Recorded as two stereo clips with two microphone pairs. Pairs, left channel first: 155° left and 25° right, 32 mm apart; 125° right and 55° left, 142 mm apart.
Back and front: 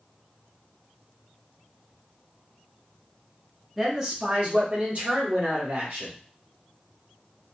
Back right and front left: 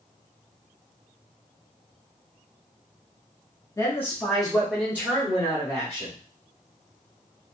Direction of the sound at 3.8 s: 105° right.